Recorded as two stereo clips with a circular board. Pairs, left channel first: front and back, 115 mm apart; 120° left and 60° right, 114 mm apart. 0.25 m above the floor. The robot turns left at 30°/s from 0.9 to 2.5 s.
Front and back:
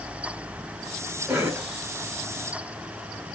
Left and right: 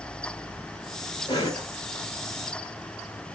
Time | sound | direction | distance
1.3 | a cough | 120° left | 1.2 m